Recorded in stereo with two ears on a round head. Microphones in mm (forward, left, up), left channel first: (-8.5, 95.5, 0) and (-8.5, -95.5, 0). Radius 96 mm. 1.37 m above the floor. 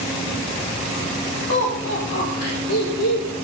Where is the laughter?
75° left (ahead or behind), 3.5 m; by 3.3 s 85° left, 5 m.